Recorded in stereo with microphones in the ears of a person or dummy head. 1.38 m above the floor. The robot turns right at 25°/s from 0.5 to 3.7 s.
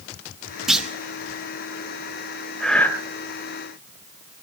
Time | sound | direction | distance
0.7 | a clunk | centre (ahead or behind) | 0.9 m
2.6 | breathing | centre (ahead or behind) | 2.5 m